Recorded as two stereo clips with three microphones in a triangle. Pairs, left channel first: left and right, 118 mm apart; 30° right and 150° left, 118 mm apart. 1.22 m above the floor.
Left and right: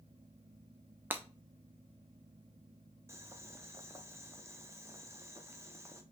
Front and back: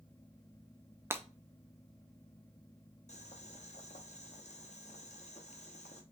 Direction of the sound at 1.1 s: 155° right.